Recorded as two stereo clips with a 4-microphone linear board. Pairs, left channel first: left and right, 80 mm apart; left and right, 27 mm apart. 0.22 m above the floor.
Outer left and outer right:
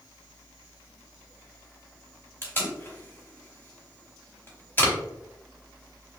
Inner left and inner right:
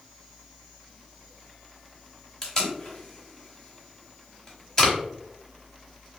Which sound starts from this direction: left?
Tape being pulled, at 2.4 s.